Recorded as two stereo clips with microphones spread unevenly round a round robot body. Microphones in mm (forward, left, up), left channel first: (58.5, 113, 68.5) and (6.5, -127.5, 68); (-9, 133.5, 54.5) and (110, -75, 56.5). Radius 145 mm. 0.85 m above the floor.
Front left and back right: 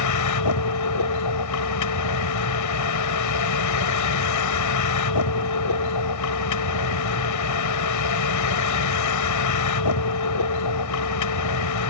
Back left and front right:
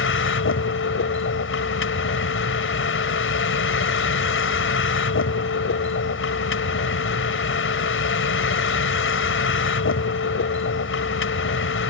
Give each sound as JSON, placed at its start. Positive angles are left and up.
{"t": 0.0, "sound": "a vehicle", "azimuth_deg": 85}